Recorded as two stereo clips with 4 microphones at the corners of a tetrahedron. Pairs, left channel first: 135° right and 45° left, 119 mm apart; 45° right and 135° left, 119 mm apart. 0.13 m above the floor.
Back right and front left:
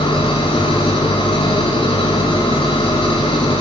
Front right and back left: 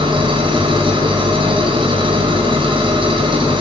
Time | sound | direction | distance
0.0 | an engine running | straight behind | 5.5 m